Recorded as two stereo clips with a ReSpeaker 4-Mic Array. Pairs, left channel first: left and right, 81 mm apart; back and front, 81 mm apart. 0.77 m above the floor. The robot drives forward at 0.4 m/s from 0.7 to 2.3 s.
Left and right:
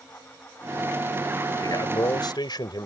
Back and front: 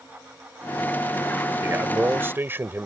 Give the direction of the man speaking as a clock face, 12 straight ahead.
10 o'clock.